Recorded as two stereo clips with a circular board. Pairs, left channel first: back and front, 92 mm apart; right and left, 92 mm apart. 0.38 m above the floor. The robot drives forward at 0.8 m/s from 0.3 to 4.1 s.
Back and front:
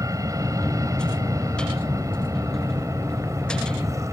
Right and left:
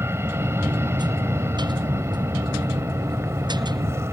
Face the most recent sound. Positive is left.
turn(degrees=40)